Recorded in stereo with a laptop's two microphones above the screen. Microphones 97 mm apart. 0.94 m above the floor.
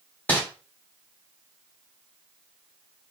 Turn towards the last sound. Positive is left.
turn(degrees=20)  # may be behind; listen again after turning